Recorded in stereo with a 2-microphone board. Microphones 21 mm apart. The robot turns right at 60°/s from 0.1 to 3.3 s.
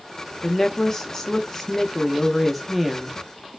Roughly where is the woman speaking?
Centre.